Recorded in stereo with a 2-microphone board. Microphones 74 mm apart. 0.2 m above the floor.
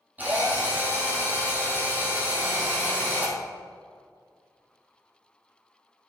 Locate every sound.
0.2 s a drill: 25° right (ahead or behind), 3 m